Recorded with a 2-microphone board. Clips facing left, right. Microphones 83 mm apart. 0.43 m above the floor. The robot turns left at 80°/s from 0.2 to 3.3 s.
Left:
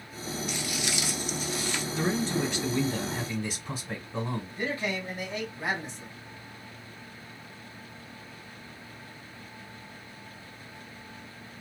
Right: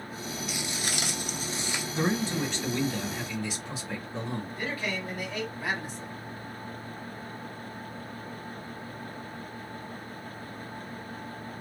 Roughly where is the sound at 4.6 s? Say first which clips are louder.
Left 4 dB; left.